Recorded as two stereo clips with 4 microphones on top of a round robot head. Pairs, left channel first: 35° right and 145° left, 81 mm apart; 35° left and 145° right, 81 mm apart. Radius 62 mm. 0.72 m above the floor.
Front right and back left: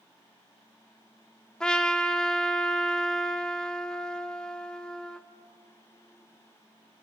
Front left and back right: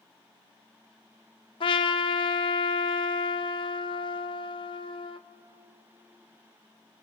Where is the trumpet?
45° left, 0.9 m.